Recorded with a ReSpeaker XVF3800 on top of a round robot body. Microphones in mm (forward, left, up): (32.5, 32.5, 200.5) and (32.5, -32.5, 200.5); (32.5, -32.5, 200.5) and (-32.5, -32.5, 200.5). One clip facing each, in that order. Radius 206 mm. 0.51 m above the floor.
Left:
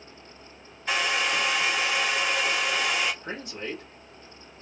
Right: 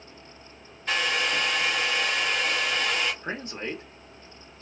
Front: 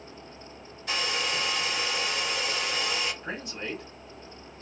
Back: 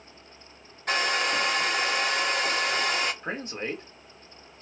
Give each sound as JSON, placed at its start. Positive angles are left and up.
{"t": 0.9, "sound": "a hair dryer", "azimuth_deg": 175, "distance_m": 1.1}
{"t": 3.2, "sound": "a man speaking", "azimuth_deg": -140, "distance_m": 1.9}